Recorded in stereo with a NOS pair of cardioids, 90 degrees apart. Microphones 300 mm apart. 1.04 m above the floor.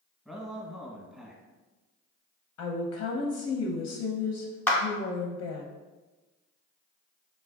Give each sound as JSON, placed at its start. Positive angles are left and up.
{"t": 0.2, "sound": "a man speaking", "azimuth_deg": 0, "distance_m": 0.9}
{"t": 2.6, "sound": "a woman speaking", "azimuth_deg": 60, "distance_m": 0.6}
{"t": 4.7, "sound": "a clap", "azimuth_deg": 5, "distance_m": 0.7}